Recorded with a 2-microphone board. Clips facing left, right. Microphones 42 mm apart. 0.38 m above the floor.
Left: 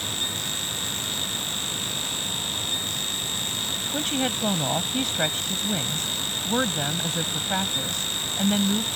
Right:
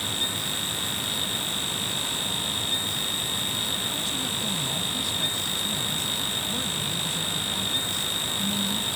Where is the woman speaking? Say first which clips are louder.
Left 4 dB; 55° left (ahead or behind).